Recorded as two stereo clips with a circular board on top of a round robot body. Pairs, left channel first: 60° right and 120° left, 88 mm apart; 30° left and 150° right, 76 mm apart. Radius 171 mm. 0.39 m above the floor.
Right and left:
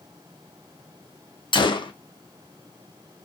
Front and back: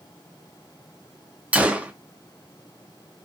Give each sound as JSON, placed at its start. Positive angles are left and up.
{"t": 1.5, "sound": "a gunshot", "azimuth_deg": -80, "distance_m": 0.6}